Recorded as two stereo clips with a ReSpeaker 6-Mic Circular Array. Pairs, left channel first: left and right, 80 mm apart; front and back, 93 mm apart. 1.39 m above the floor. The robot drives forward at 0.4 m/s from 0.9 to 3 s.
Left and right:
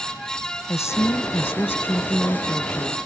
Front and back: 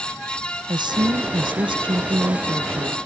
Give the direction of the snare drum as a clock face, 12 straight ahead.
No snare drum in this recording.